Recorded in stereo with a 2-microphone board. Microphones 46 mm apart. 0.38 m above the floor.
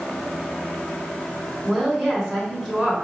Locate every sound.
1.6 s a woman speaking: 5° right (ahead or behind), 1.7 m